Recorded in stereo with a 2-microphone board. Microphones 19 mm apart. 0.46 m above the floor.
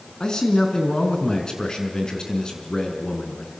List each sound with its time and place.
0.2 s a man speaking: 35° left (ahead or behind), 5 m